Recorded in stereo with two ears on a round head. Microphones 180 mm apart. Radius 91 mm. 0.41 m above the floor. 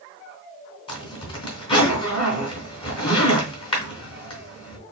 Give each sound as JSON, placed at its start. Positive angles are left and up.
{"t": 0.9, "sound": "a zipper", "side_deg": 25, "distance_m": 3.0}